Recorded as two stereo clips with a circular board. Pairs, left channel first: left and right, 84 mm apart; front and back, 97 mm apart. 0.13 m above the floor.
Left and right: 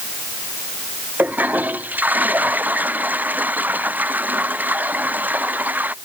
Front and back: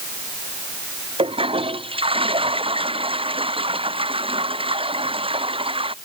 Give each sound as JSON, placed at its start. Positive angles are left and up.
{"t": 1.2, "sound": "a toilet flushing", "azimuth_deg": -160}